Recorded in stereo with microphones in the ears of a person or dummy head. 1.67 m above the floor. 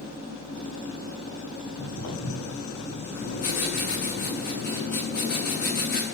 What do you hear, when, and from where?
1.6 s footsteps: 50° left (ahead or behind), 7 m
3.1 s writing: 50° left (ahead or behind), 7 m